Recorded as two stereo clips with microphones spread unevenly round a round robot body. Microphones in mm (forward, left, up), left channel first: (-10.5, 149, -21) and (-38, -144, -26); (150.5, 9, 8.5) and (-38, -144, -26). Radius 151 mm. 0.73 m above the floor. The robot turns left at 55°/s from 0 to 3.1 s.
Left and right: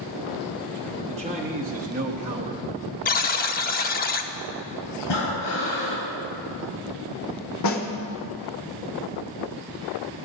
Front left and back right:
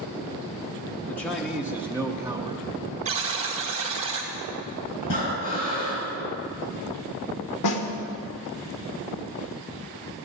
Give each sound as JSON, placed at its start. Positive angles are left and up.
{"t": 1.1, "sound": "a man speaking", "azimuth_deg": -50, "distance_m": 0.9}
{"t": 3.0, "sound": "a buzzer", "azimuth_deg": 150, "distance_m": 0.8}
{"t": 5.0, "sound": "breathing", "azimuth_deg": 70, "distance_m": 3.0}
{"t": 7.6, "sound": "a snare drum", "azimuth_deg": 45, "distance_m": 1.2}